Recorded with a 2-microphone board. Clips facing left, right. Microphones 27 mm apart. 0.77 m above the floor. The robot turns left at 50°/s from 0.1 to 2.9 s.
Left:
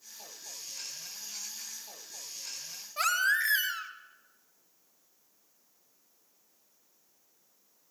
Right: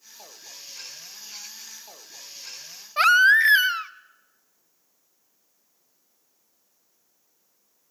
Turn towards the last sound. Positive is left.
turn(degrees=-40)  # may be behind; listen again after turning